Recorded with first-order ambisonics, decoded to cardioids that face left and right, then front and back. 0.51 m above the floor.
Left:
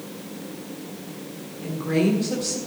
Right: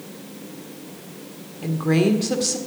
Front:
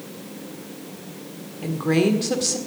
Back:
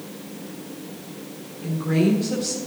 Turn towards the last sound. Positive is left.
turn(degrees=-40)